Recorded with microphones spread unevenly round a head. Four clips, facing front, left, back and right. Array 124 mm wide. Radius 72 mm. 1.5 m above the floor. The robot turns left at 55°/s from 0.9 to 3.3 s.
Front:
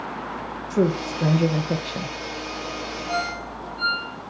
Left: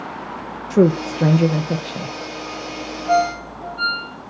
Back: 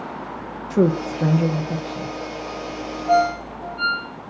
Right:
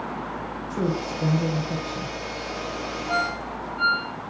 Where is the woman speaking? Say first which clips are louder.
Left 12 dB, back 3 dB; 90° left, 1.6 m; by 2.1 s 25° left, 1.6 m.